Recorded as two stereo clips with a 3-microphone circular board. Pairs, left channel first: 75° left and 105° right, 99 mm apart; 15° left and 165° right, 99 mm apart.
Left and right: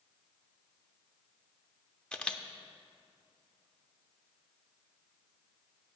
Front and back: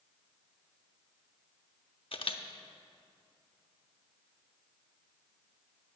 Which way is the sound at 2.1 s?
5° right.